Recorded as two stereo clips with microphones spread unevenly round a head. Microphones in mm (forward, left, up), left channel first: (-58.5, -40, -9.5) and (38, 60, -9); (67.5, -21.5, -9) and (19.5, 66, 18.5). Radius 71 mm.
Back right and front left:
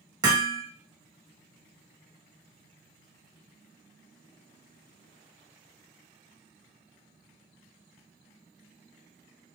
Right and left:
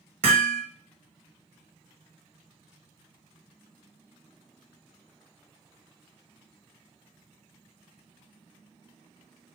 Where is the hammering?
110° left, 0.8 m.